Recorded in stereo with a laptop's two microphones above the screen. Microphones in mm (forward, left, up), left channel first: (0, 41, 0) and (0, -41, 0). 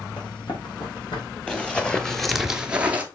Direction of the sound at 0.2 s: 65° left (ahead or behind).